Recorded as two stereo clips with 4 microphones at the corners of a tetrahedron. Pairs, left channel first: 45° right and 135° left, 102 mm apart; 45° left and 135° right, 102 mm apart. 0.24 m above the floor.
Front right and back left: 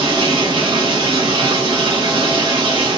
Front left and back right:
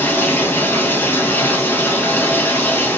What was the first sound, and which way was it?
Running water, 110° left.